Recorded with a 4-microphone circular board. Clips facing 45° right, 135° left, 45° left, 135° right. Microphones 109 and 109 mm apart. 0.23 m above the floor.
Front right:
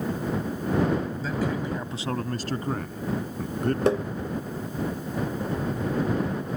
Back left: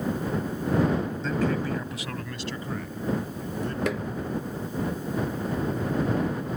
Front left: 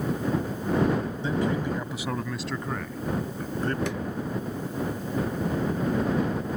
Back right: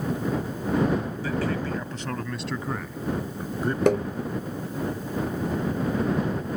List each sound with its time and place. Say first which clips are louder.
1.2 s a man speaking: back left 2 dB, front left 1 dB; 35° left; by 3.8 s 60° right
3.9 s tapping: front right 9 dB, back right 11 dB; 100° right